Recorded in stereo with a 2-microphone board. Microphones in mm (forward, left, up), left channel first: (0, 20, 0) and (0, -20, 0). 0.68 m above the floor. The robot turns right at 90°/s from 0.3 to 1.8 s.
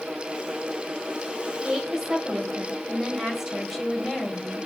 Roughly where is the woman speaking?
Right.